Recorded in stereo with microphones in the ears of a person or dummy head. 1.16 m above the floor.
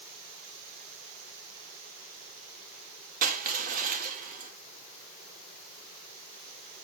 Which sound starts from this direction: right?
Crushing, at 3.2 s.